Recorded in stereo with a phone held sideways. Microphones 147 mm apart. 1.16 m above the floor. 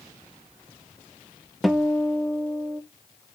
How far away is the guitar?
About 0.6 m.